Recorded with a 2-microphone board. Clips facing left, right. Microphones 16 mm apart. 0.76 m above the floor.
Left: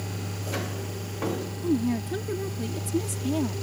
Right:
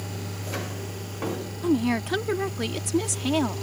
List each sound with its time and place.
1.6 s a woman speaking: 50° right (ahead or behind)